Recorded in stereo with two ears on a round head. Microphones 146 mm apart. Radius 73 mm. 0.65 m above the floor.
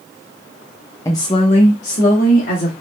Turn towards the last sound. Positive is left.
turn(degrees=60)  # may be behind; listen again after turning